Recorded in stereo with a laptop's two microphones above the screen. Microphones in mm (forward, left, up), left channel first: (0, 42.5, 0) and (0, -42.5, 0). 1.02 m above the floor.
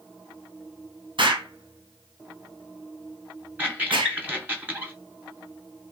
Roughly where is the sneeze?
I don't hear a sneeze.